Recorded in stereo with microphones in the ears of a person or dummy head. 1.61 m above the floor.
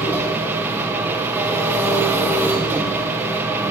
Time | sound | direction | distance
0.0 | an engine running | 10° right (ahead or behind) | 0.9 m